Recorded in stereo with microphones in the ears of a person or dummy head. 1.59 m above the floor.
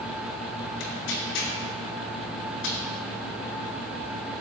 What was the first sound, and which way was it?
Tearing paper, 75° left (ahead or behind).